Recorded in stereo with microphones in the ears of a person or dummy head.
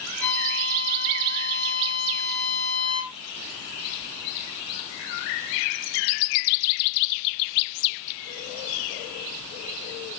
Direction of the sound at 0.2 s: 45° right (ahead or behind).